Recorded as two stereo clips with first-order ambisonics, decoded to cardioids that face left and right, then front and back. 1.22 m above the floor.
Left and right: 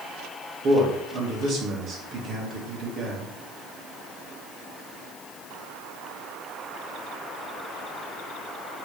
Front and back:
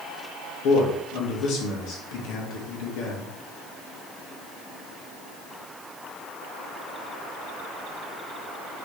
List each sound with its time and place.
0.6 s a man speaking: 35° right, 1.5 m